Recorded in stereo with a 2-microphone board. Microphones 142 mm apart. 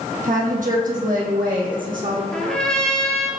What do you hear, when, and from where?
0.2 s a woman speaking: 65° right (ahead or behind), 3 m; by 2.2 s 70° right (ahead or behind), 5.5 m
2.3 s a trumpet: 5° left (ahead or behind), 2.5 m